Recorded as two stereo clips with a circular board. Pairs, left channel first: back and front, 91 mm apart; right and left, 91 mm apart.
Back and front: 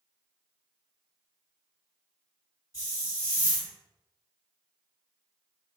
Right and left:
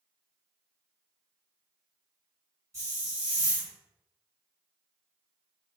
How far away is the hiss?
About 1.8 m.